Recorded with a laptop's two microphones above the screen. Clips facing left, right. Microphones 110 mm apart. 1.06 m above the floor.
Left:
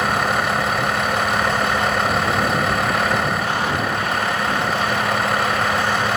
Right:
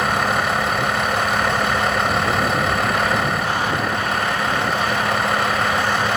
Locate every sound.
0.0 s a vehicle: centre (ahead or behind)